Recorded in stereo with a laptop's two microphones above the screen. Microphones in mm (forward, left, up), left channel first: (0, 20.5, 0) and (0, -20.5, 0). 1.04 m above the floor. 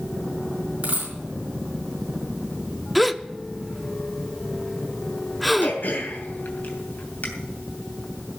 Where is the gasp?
Centre (ahead or behind), 0.6 m.